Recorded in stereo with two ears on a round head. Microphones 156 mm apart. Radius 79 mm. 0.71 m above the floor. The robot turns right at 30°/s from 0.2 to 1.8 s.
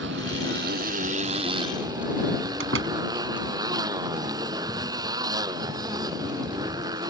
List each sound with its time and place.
0.0 s a motorcycle: 70° right; by 7.1 s 20° right
2.6 s a door slam: 80° right